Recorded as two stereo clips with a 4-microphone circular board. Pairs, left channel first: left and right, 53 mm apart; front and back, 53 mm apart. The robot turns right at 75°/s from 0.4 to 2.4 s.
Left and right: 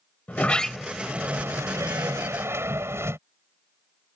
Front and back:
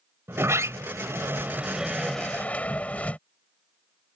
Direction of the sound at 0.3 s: 150° left.